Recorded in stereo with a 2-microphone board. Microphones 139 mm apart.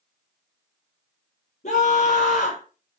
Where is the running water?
No running water in this recording.